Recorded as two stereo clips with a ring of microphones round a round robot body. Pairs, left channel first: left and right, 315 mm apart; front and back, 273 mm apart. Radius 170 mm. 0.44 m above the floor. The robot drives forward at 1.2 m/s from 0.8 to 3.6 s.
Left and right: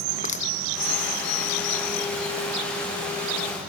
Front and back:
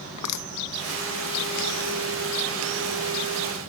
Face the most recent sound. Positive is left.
turn(degrees=60)